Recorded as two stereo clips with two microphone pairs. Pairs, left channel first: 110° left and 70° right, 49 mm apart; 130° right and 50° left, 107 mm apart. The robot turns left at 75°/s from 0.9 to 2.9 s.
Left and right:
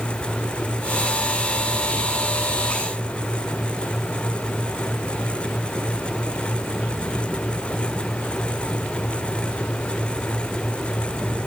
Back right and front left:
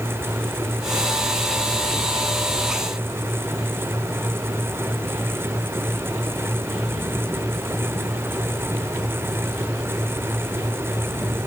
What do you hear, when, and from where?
Only background noise.